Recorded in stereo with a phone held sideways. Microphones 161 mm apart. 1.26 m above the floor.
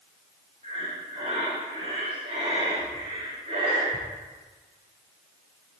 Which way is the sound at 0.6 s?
40° right (ahead or behind).